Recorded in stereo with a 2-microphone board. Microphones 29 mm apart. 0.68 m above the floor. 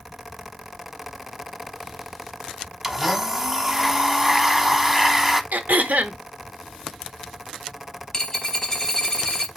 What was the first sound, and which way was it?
A blender, 10° right (ahead or behind).